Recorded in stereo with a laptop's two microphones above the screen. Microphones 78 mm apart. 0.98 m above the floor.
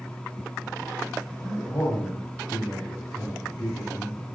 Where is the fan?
10° left (ahead or behind), 0.8 m.